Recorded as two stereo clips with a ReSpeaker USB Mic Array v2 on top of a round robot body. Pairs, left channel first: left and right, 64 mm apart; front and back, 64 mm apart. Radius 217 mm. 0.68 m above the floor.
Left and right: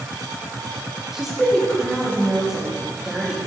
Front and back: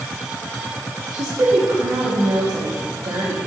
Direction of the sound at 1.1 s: 170° right.